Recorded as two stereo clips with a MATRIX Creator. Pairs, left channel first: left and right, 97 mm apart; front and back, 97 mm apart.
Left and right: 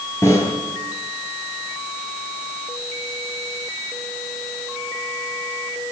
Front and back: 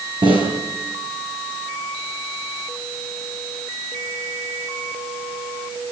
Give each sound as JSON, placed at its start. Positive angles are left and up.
{"t": 0.2, "sound": "a snare drum", "azimuth_deg": 150, "distance_m": 7.5}